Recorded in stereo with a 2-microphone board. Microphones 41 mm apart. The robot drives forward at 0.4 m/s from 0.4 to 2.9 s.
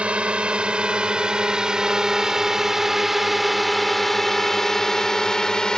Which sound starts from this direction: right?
A drone, at 0.0 s.